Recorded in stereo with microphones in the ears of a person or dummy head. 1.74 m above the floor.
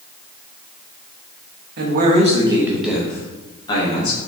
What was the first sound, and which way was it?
A man speaking, 55° right (ahead or behind).